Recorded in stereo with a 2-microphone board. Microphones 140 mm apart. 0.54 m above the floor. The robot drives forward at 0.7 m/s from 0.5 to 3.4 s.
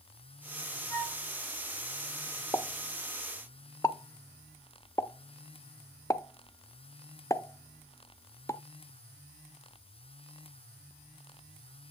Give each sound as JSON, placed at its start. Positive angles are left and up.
{"t": 0.9, "sound": "a flute", "side_deg": 30, "distance_m": 3.5}
{"t": 2.5, "sound": "a pop", "side_deg": 20, "distance_m": 0.6}